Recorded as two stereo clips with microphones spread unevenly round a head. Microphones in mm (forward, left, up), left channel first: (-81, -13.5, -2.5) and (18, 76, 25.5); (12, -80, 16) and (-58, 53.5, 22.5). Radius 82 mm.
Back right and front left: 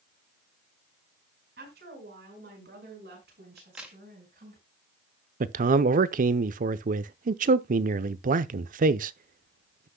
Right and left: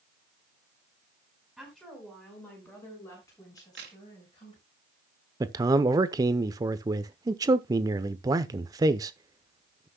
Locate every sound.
1.6 s a woman speaking: 30° left, 5 m; by 4.6 s straight ahead, 6.5 m
3.6 s a crack: 120° left, 2.5 m
5.4 s a man speaking: 55° left, 0.7 m